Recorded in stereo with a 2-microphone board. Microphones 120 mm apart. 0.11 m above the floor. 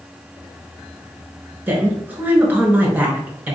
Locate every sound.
1.7 s a woman speaking: 15° right (ahead or behind), 1.4 m